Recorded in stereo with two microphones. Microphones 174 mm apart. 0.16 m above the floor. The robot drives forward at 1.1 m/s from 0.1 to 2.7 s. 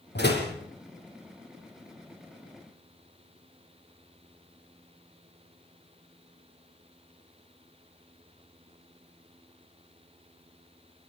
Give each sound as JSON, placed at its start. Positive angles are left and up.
{"t": 0.1, "sound": "a door slam", "side_deg": 70, "distance_m": 5.5}